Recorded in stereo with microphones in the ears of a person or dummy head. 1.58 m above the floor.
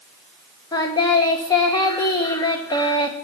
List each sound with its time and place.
0.7 s singing: 20° left (ahead or behind), 1.3 m